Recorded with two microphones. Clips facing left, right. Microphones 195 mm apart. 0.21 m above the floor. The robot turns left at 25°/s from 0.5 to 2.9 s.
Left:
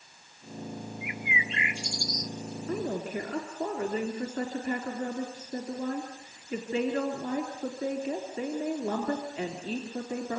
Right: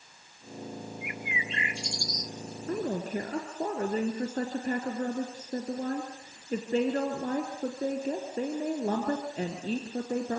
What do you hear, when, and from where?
1.0 s a bird: 130° right, 0.7 m; by 2.3 s 160° right, 0.7 m
2.7 s a woman speaking: 45° right (ahead or behind), 3.5 m; by 10.4 s 40° right (ahead or behind), 3.5 m